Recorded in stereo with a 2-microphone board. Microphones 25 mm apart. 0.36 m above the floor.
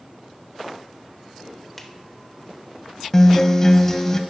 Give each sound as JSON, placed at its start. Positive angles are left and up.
{"t": 1.8, "sound": "a finger snap", "side_deg": 10, "distance_m": 1.2}
{"t": 3.1, "sound": "a guitar", "side_deg": 25, "distance_m": 0.7}